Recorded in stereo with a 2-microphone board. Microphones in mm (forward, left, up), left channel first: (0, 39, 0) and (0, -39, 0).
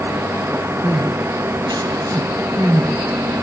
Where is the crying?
65° right (ahead or behind), 5 m.